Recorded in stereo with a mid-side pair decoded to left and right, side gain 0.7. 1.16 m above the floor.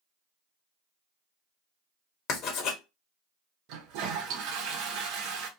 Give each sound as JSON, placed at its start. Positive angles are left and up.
{"t": 2.3, "sound": "writing", "azimuth_deg": 55, "distance_m": 1.0}
{"t": 3.7, "sound": "a toilet flushing", "azimuth_deg": -70, "distance_m": 0.8}